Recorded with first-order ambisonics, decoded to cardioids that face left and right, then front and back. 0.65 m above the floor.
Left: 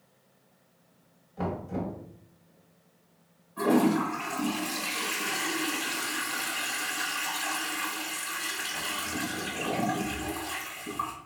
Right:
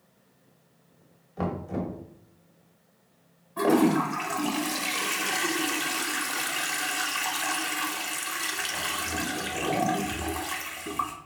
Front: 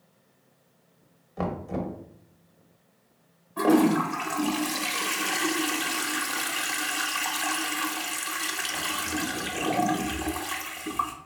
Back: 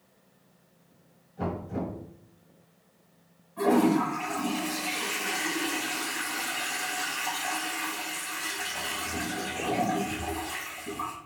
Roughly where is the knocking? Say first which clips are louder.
Right 2 dB, front 2 dB; ahead right.